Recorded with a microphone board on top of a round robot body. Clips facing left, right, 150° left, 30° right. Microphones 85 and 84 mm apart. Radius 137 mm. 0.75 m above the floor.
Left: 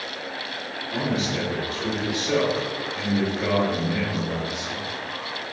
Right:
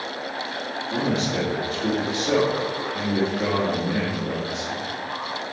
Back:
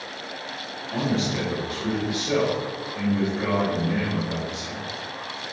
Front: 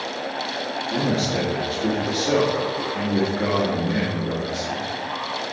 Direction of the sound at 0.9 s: 35° right.